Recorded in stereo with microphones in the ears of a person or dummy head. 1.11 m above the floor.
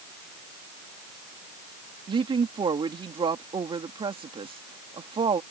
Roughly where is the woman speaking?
Right.